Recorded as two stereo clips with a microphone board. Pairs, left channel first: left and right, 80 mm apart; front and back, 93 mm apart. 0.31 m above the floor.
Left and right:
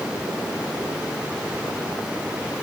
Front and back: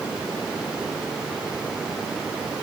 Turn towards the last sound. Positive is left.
No sound to turn to.